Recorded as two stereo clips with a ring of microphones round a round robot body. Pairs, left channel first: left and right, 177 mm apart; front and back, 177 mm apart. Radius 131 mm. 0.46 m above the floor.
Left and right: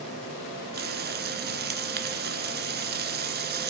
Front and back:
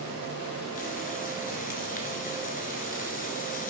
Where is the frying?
60° right, 1.1 m.